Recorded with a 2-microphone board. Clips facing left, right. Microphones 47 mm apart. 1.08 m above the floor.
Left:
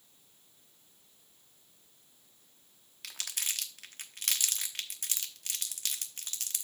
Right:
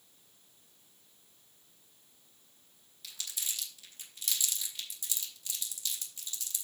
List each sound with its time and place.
3.0 s crumpling: 60° left (ahead or behind), 0.9 m